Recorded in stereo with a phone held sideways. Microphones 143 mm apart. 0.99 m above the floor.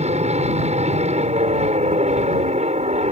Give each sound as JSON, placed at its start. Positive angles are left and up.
{"t": 0.0, "sound": "an aircraft", "side_deg": -50}